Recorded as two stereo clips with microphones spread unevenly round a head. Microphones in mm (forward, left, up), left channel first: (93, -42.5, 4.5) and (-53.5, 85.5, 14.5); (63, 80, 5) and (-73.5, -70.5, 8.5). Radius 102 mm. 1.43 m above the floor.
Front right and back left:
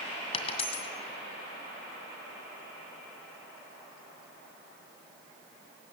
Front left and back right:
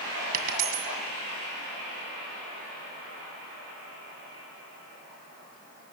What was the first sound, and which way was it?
A dropped coin, 100° right.